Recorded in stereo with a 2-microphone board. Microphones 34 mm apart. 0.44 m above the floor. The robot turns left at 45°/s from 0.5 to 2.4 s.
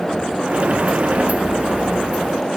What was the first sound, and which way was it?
Only background noise.